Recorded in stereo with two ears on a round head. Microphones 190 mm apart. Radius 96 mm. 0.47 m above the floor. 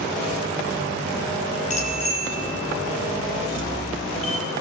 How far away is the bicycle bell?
About 8 m.